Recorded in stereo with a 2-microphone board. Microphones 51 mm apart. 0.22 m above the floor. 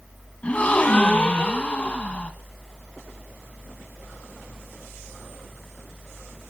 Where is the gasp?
25° left (ahead or behind), 1.8 m.